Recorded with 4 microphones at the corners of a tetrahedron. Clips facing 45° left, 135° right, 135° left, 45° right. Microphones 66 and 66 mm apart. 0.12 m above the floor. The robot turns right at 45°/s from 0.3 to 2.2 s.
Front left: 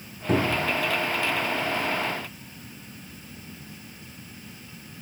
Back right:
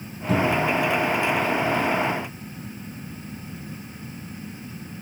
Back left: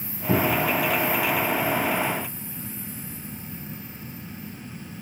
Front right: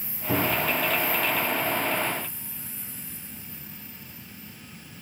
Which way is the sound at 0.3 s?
85° left.